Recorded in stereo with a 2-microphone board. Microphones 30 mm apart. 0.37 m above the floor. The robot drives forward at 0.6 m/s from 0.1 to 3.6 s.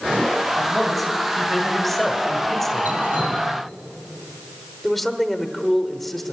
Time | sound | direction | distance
0.6 | a man speaking | 5° left (ahead or behind) | 2.5 m
2.9 | dripping | 85° right | 5.5 m
4.8 | a man speaking | 10° left (ahead or behind) | 1.0 m